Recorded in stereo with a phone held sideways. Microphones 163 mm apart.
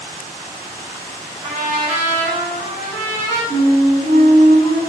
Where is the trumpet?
35° right (ahead or behind), 1.0 m.